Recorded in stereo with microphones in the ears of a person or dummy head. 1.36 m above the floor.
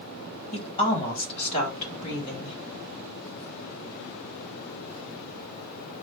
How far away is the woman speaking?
About 1.8 m.